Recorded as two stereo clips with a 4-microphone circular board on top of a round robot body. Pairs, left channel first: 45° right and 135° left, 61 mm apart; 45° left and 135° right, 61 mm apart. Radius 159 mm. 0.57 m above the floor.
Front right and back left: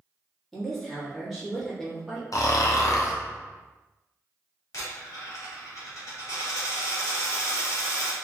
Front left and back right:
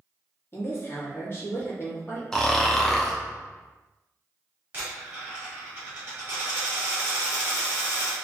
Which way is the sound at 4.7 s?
75° right.